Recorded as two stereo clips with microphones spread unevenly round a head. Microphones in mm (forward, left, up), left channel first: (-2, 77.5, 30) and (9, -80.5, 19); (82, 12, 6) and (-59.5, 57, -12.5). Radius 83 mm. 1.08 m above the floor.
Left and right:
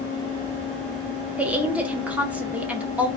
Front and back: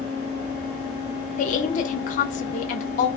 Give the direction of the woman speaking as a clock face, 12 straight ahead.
12 o'clock.